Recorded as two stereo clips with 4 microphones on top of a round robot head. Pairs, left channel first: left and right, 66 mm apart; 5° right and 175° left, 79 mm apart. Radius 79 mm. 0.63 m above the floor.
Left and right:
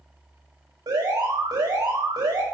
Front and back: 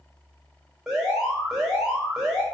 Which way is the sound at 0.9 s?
95° right.